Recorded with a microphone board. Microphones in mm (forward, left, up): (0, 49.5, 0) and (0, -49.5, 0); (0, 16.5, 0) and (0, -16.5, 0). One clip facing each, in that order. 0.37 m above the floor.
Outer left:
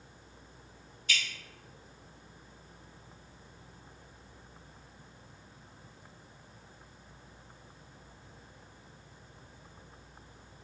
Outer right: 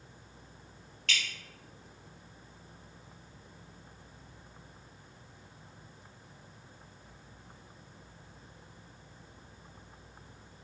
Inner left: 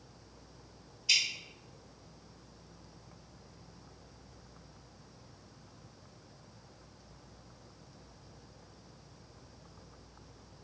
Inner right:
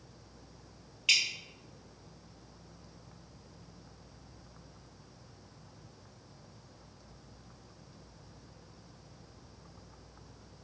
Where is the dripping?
90° right, 1.9 m.